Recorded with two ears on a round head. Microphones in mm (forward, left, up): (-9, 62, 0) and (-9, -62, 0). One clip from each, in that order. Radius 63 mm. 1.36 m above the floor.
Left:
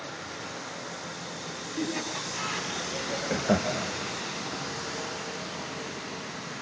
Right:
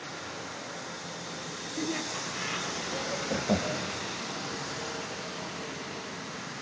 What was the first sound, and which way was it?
Laughter, 20° right (ahead or behind).